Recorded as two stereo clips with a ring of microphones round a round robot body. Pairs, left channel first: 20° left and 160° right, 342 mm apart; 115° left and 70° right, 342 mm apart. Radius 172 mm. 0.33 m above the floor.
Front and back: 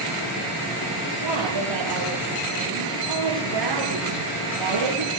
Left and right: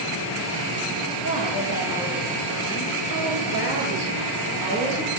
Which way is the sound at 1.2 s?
170° left.